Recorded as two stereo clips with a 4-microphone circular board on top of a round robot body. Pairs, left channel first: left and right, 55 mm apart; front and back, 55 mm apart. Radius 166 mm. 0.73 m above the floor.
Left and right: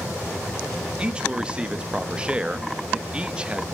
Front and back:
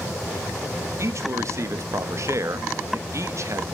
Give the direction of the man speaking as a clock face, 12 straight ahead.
5 o'clock.